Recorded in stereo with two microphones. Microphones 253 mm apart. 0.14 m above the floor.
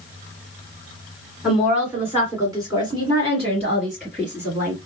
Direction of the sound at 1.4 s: Centre (ahead or behind).